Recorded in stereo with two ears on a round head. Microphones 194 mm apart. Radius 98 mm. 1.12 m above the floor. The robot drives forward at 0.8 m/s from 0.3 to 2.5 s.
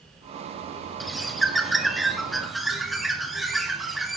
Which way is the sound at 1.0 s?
Centre (ahead or behind).